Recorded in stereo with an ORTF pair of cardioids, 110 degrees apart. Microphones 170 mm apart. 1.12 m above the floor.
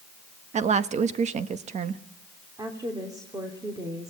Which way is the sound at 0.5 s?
45° right.